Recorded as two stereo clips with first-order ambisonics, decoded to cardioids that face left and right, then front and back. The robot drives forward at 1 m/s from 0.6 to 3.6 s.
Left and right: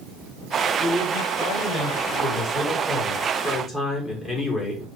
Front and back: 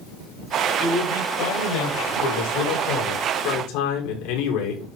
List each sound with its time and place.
0.8 s a man speaking: straight ahead, 8.5 m; by 4.9 s 5° left, 6 m